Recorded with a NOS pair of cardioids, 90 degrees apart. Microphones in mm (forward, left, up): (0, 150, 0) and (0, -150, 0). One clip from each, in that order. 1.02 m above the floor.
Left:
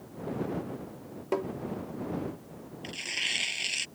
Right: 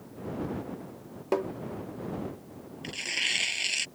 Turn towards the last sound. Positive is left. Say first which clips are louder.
# right 2 dB
turn(degrees=-20)